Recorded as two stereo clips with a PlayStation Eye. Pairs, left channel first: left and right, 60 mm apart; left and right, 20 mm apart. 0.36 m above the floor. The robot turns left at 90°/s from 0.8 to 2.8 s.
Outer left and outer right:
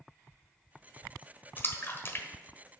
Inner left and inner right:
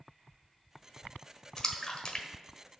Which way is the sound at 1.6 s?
35° left (ahead or behind).